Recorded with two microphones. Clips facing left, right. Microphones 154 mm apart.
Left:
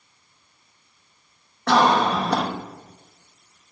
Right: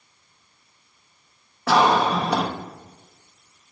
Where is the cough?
5° right (ahead or behind), 1.0 m.